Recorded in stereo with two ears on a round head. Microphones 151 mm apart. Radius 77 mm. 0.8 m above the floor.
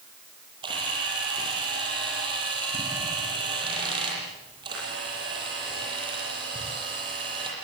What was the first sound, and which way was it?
A camera shutter, 25° right (ahead or behind).